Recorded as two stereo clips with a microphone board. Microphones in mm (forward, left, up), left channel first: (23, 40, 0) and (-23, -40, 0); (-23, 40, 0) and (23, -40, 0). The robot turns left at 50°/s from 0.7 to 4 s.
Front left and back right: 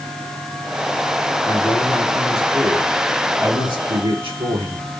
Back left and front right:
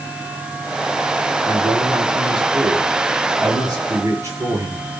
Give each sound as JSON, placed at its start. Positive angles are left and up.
{"t": 1.4, "sound": "a man speaking", "azimuth_deg": 10, "distance_m": 5.5}